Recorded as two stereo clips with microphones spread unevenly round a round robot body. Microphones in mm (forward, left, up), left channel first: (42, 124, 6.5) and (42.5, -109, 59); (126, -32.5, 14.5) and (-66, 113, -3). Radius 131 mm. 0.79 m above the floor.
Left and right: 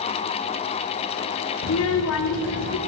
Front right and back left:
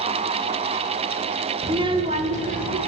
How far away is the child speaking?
About 1.1 m.